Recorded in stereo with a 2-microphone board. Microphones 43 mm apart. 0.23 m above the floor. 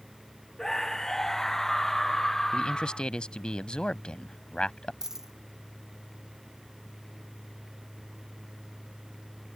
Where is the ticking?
No ticking in this recording.